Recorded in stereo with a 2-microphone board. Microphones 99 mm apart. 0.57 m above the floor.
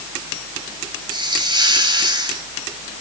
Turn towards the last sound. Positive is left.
turn(degrees=-50)  # may be behind; listen again after turning